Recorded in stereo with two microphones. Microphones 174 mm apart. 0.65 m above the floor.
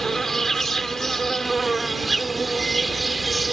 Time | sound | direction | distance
0.0 | an insect | centre (ahead or behind) | ?